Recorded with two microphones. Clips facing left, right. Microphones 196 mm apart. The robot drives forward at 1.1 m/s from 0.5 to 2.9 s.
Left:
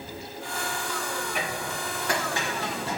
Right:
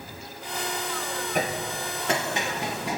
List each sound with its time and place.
1.4 s hammering: 45° right (ahead or behind), 0.8 m; by 3.0 s 15° right (ahead or behind), 2.5 m